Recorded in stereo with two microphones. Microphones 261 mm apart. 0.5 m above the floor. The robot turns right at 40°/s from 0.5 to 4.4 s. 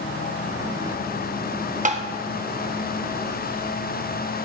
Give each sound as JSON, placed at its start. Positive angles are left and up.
{"t": 1.9, "sound": "tapping", "side_deg": -30, "distance_m": 0.5}